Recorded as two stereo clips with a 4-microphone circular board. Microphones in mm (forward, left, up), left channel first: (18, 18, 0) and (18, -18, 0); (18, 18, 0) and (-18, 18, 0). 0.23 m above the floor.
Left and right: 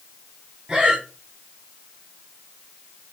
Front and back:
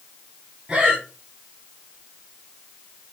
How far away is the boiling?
I don't hear boiling.